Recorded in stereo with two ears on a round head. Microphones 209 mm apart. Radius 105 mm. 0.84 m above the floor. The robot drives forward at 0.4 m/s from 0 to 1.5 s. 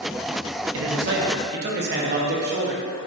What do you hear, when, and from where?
0.7 s a man speaking: 60° right (ahead or behind), 0.7 m; by 2.8 s 45° right (ahead or behind), 0.8 m